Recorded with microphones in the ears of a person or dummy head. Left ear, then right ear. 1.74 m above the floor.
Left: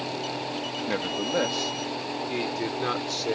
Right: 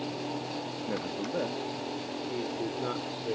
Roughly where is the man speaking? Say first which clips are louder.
Left 7 dB; left.